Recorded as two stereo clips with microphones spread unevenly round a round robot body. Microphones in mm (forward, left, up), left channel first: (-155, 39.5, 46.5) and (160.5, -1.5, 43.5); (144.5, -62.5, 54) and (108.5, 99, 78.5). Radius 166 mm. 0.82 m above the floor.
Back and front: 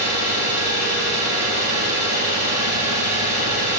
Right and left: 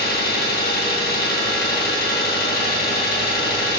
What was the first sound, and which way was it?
An engine running, 55° right.